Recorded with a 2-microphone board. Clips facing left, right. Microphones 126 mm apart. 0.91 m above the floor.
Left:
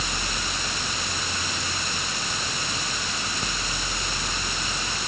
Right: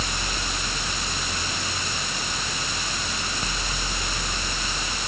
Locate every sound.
Only background noise.